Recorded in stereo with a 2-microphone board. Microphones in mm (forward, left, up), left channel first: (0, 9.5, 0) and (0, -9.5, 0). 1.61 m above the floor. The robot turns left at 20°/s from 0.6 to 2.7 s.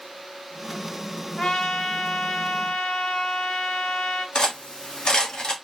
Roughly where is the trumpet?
Left.